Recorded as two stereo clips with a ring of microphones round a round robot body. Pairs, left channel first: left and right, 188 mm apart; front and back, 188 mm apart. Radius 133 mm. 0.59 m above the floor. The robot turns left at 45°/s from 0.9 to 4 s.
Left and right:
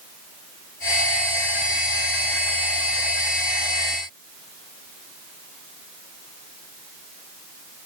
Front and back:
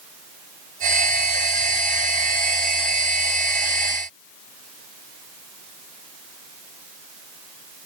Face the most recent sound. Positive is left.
No sound to turn to.